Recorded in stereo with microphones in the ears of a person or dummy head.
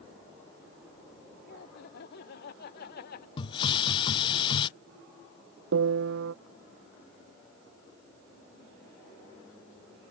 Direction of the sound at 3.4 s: 25° left (ahead or behind).